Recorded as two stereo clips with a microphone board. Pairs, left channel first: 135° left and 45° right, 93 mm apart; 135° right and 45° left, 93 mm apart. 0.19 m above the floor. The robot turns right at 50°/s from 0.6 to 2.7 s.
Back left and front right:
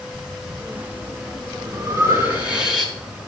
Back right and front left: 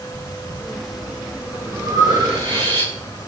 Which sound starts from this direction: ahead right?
Breathing, at 0.1 s.